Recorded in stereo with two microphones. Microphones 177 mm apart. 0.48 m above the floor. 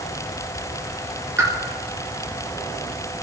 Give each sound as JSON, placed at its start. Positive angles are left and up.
{"t": 1.4, "sound": "a pop", "side_deg": -15, "distance_m": 4.5}